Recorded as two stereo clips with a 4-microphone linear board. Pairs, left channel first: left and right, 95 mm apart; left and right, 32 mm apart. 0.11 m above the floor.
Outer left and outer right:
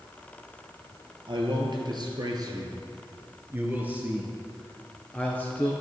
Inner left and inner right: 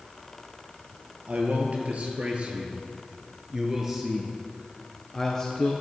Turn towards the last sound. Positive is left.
turn(degrees=20)  # may be behind; listen again after turning